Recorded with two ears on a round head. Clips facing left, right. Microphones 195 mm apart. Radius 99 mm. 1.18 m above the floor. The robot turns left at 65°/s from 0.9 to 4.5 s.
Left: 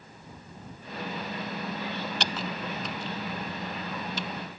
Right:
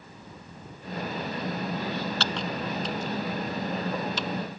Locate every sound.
2.2 s typing on a keyboard: 15° left (ahead or behind); by 4.3 s 60° right (ahead or behind)